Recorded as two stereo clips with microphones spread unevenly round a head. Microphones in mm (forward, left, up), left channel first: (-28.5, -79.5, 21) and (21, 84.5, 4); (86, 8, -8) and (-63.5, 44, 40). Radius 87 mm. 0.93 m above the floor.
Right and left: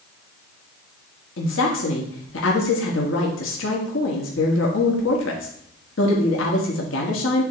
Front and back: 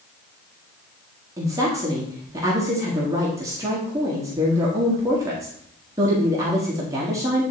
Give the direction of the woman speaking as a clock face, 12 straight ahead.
4 o'clock.